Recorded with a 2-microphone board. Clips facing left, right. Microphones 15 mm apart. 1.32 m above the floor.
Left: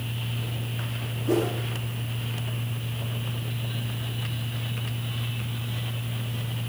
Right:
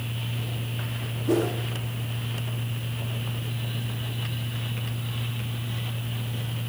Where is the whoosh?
5° right (ahead or behind), 1.0 m.